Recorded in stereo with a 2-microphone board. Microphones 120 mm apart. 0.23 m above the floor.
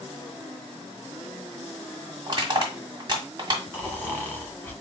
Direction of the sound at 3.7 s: 20° left (ahead or behind).